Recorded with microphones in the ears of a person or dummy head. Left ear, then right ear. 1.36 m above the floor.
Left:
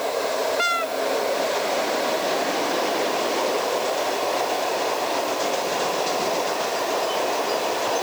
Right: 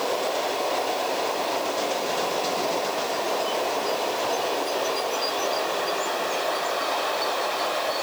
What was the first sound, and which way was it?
Only background noise.